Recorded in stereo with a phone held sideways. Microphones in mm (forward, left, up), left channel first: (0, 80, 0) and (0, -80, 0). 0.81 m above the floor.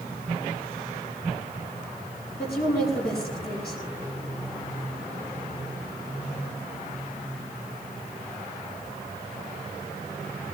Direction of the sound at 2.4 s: 80° left.